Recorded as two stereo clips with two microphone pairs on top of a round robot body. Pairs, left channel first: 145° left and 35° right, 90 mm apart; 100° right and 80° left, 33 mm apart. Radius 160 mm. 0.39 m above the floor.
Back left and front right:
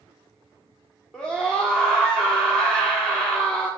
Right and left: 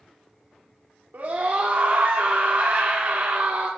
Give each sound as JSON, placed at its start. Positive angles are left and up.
{"t": 1.1, "sound": "a scream", "azimuth_deg": 70, "distance_m": 2.0}